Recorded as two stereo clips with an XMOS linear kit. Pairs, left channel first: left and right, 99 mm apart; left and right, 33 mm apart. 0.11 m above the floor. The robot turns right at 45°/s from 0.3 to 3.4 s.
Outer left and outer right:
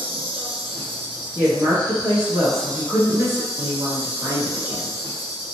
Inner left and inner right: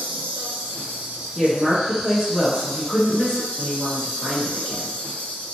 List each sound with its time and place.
0.0 s an insect: 95° right, 0.9 m; by 5.5 s 45° left, 0.9 m
1.4 s a woman speaking: 150° right, 1.3 m; by 5.0 s 60° right, 1.3 m